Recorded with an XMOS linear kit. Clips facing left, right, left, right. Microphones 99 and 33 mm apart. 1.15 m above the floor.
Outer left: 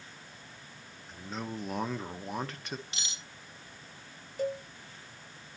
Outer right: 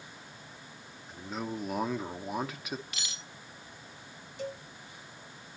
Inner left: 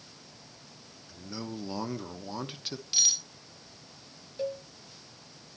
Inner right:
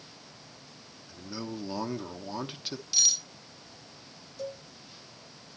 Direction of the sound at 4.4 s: 40° left (ahead or behind).